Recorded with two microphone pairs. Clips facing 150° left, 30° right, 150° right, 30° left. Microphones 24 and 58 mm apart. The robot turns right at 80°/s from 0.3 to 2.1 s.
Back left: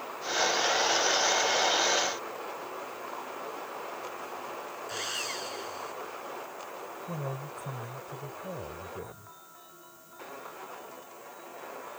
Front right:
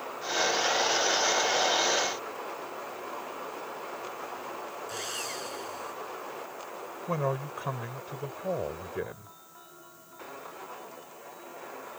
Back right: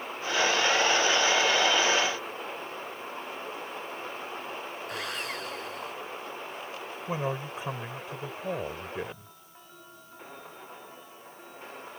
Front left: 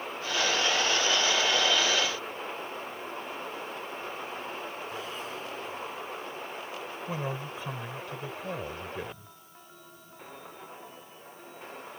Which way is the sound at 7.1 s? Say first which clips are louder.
Front right 9 dB, back right 4 dB; 80° right.